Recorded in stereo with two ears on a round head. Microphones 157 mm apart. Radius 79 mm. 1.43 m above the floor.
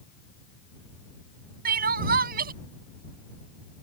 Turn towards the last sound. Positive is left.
turn(degrees=-50)  # may be behind; listen again after turning